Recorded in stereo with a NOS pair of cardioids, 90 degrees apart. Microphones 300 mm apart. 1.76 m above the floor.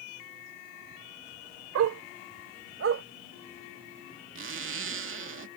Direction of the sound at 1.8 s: 65° right.